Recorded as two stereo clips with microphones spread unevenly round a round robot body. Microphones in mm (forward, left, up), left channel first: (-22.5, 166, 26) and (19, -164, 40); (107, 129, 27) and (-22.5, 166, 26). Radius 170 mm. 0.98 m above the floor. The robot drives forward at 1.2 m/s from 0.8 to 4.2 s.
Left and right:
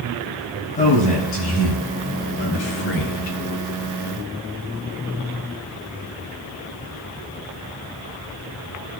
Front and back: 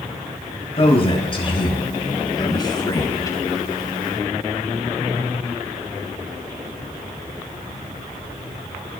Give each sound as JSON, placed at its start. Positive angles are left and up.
{"t": 0.8, "sound": "a man speaking", "azimuth_deg": 30, "distance_m": 7.0}